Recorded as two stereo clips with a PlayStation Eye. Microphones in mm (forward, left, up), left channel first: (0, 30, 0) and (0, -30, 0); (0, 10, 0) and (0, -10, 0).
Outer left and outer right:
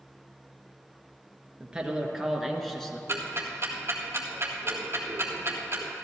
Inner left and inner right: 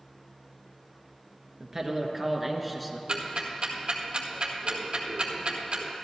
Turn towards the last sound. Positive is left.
turn(degrees=-45)  # may be behind; listen again after turning